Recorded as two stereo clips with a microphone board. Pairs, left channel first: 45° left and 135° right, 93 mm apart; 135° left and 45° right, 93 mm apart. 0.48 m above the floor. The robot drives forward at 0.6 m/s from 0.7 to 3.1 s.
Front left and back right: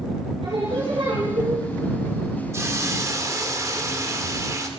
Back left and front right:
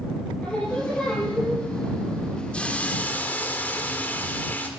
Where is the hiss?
160° right, 1.6 m; by 4.7 s 165° right, 1.8 m.